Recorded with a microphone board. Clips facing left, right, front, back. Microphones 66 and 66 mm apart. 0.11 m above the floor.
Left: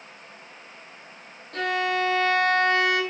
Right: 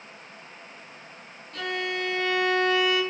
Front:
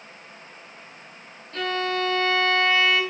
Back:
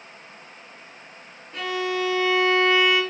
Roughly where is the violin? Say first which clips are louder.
Left 5 dB, even; left.